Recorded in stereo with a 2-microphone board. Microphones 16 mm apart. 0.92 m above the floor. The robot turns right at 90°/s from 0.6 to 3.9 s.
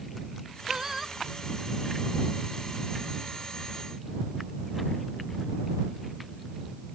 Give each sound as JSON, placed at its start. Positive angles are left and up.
{"t": 0.7, "sound": "singing", "azimuth_deg": -50}